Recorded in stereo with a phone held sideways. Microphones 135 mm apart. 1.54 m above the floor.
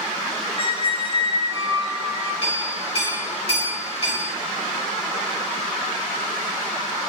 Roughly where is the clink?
Left.